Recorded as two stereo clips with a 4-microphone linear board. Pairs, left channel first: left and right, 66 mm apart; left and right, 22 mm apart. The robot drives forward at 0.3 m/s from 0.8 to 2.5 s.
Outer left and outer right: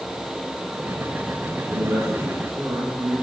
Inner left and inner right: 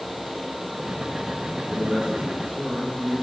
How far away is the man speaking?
About 4 m.